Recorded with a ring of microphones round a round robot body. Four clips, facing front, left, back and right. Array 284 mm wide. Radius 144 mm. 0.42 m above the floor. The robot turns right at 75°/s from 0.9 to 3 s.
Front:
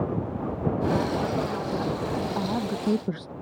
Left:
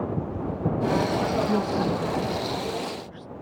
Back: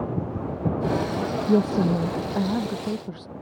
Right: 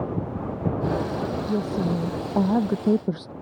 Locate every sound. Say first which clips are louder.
1.5 s a woman speaking: left 1 dB, back 7 dB; 175° left; by 3.3 s 70° right